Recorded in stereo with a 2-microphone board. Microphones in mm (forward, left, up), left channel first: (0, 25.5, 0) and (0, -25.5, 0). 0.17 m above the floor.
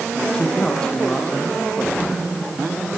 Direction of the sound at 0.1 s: 15° left (ahead or behind).